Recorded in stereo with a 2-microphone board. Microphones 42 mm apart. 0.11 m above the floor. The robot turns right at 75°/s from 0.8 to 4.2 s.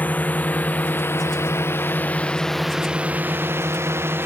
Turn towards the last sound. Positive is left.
turn(degrees=-60)  # may be behind; listen again after turning